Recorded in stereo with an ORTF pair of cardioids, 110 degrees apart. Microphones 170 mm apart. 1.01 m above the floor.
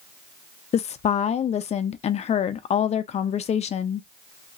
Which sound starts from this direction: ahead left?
A woman speaking, at 0.7 s.